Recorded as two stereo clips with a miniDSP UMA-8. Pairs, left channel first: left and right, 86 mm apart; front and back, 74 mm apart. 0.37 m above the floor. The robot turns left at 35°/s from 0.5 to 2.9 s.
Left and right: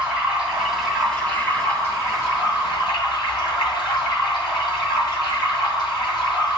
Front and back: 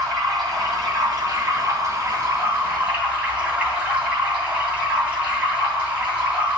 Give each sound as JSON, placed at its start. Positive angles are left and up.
{"t": 0.0, "sound": "running water", "azimuth_deg": -170, "distance_m": 2.5}